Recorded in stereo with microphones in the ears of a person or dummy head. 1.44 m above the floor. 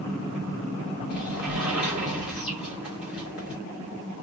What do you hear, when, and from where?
1.1 s a sliding door: 10° right (ahead or behind), 2.5 m